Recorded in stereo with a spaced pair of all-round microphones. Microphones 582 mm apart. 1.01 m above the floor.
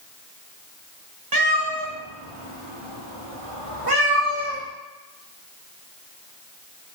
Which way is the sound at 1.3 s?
40° right (ahead or behind).